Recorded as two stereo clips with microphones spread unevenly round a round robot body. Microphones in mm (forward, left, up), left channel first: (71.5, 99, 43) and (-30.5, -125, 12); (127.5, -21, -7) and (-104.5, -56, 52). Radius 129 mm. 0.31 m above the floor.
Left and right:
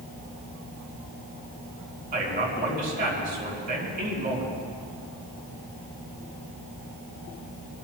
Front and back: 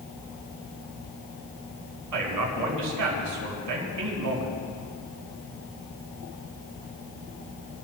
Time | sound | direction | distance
2.1 | a man speaking | 170° right | 4 m